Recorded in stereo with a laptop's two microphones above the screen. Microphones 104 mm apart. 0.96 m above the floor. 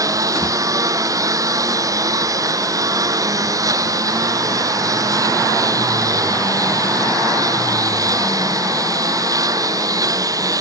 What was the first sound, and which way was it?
A lawn mower, 35° right (ahead or behind).